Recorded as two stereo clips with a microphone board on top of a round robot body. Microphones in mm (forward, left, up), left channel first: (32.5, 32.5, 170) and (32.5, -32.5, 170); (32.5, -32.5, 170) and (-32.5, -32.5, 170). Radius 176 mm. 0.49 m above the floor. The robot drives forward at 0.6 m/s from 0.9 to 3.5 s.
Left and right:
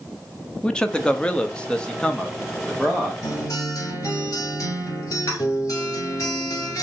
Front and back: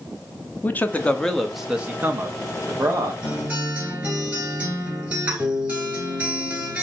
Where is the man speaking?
25° left, 0.9 m; by 3.1 s 170° left, 1.3 m.